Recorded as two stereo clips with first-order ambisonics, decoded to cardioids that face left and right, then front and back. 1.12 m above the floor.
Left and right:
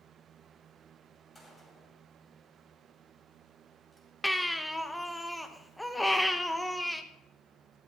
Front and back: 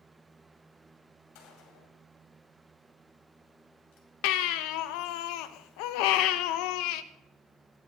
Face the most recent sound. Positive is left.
turn(degrees=5)